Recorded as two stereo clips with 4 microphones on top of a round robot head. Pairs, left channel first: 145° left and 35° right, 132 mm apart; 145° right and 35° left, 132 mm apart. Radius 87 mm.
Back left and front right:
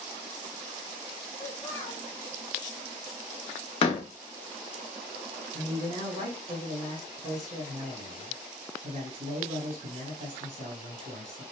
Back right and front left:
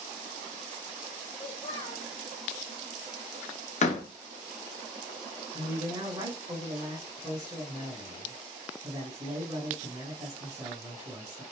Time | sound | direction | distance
1.4 | a child speaking | 150° right | 0.7 m
3.8 | a door slam | 170° right | 0.7 m
5.5 | a man speaking | 25° right | 2.5 m